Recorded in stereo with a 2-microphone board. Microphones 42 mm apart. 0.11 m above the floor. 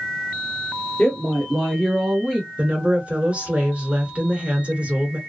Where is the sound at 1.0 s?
20° left (ahead or behind), 1.1 m; by 2.5 s 15° right (ahead or behind), 1.6 m.